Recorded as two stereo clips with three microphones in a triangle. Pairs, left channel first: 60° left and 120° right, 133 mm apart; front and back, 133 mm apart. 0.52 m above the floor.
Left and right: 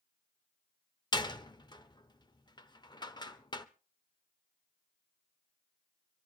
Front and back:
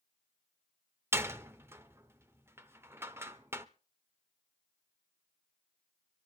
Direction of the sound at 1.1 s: 110° left.